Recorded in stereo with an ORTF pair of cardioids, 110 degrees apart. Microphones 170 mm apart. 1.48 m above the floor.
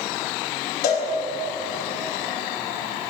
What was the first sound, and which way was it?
A cowbell, 65° left.